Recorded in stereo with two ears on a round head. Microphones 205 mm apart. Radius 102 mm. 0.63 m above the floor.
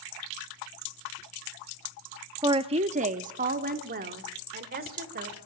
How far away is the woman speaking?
About 0.6 m.